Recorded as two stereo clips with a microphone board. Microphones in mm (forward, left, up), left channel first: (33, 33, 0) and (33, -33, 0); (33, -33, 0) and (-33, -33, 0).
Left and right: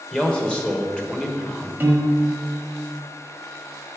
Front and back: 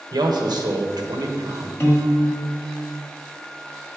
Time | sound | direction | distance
0.1 | a man speaking | 165° left | 1.2 m
1.8 | a piano | 35° right | 1.3 m